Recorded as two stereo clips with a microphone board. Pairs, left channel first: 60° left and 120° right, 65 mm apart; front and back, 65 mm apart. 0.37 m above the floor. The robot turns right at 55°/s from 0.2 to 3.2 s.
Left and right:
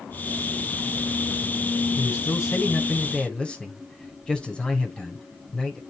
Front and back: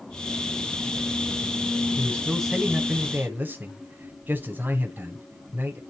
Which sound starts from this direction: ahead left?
A man speaking, at 2.0 s.